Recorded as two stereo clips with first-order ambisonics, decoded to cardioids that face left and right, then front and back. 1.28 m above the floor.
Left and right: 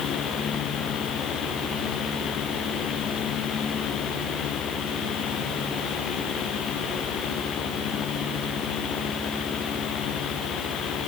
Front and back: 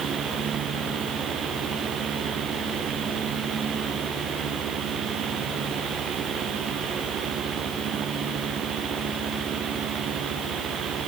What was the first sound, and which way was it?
Only background noise.